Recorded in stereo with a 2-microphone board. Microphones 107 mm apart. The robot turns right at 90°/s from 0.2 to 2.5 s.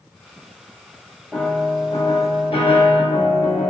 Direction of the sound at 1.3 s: 5° right.